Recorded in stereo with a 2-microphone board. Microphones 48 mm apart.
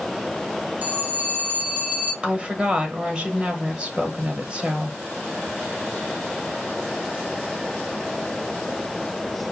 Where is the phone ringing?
40° right (ahead or behind), 2.5 m.